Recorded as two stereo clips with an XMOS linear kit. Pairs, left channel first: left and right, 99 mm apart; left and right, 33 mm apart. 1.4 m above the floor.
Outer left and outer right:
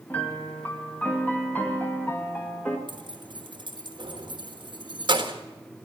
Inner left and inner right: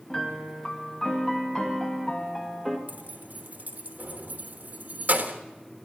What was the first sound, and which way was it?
A piano, 15° left (ahead or behind).